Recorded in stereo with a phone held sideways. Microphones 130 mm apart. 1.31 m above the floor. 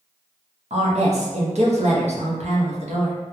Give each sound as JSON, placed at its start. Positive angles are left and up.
{"t": 0.7, "sound": "a woman speaking", "side_deg": -65, "distance_m": 0.9}